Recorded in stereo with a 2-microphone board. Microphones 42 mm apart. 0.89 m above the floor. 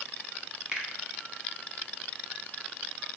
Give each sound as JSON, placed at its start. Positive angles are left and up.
{"t": 0.7, "sound": "a finger snap", "side_deg": -20, "distance_m": 1.1}